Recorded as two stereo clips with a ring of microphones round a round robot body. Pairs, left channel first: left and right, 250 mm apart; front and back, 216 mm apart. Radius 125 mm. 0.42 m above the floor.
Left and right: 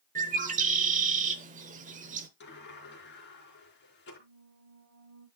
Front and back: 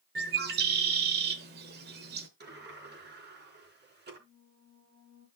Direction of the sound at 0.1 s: 145° right.